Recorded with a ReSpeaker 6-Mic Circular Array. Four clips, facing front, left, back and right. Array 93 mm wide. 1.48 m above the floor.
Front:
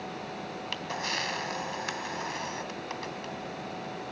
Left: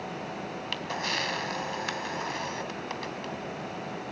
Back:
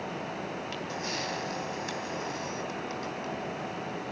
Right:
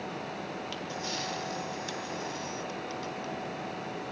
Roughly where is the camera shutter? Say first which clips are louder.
Left 3 dB, even; ahead left.